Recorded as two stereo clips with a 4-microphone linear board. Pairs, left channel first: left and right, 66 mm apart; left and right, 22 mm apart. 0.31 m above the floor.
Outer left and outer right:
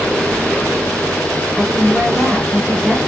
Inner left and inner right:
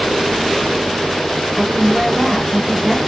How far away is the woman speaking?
About 1.0 m.